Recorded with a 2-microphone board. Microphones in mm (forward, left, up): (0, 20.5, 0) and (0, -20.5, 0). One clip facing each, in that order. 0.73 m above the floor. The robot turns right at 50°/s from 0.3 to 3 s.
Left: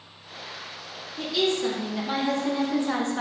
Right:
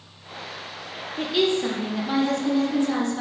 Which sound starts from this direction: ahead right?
A woman speaking, at 1.2 s.